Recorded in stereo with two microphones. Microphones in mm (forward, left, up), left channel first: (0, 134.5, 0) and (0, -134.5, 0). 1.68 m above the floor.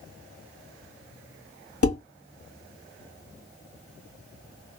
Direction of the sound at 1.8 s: 55° left (ahead or behind).